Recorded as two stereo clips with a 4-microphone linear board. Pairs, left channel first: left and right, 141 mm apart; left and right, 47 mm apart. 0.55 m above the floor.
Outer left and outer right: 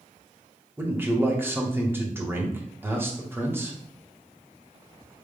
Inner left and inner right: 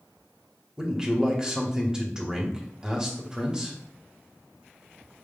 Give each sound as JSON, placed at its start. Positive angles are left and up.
{"t": 0.8, "sound": "a man speaking", "side_deg": -15, "distance_m": 1.0}